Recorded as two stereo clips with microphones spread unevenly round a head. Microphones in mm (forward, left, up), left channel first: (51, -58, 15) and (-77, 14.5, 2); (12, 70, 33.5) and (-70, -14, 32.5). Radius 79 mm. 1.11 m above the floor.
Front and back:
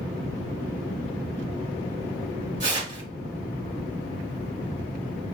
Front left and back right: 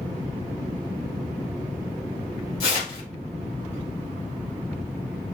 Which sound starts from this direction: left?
Tearing paper, at 2.6 s.